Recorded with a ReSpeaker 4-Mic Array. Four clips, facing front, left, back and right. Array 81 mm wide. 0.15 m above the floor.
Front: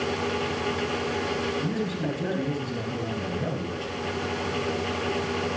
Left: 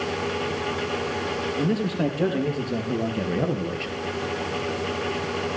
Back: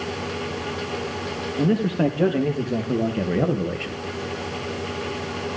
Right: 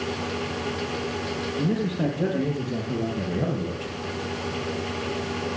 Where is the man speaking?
165° left, 5 m; by 4.0 s 160° left, 3 m.